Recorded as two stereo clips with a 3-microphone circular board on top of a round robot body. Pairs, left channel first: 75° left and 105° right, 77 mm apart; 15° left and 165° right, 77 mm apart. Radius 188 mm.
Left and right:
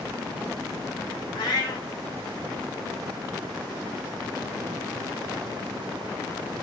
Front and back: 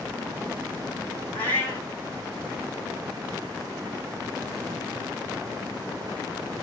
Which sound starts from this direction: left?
A cat meowing, at 1.3 s.